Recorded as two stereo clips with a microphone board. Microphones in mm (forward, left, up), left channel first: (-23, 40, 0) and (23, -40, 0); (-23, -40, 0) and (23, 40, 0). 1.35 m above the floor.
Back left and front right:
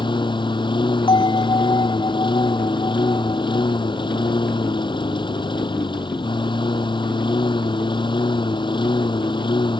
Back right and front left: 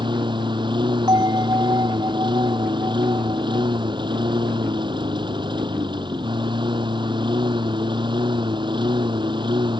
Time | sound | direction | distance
0.0 | a lawn mower | 90° left | ?
1.1 | a bell | 100° left | ?